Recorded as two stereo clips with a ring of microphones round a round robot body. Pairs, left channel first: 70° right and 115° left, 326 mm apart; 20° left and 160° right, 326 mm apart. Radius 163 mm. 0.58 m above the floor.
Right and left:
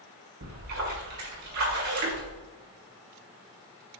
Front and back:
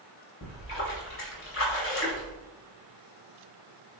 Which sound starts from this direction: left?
A splash, at 0.4 s.